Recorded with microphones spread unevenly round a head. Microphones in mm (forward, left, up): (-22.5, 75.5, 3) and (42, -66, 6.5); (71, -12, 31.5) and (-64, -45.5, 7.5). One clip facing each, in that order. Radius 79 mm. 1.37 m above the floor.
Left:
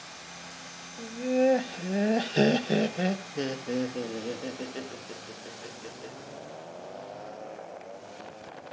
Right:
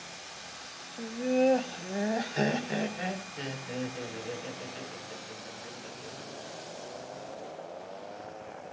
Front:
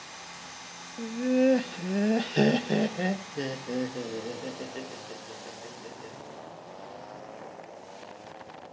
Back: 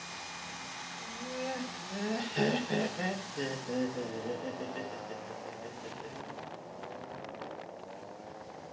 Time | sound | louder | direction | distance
1.0 | laughter | left 1 dB, front 16 dB | 15° left | 1.1 m